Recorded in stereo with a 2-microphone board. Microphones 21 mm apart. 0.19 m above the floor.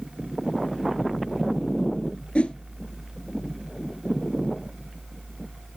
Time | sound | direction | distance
2.4 | a whoosh | 75° left (ahead or behind) | 0.8 m